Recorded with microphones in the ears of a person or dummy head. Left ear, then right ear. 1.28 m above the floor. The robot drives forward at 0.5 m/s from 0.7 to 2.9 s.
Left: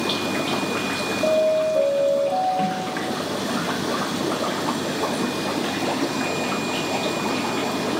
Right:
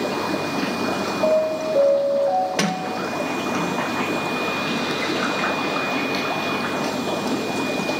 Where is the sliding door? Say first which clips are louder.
Right 1 dB; 65° right (ahead or behind), 0.8 m; by 3.8 s 55° right (ahead or behind), 0.8 m.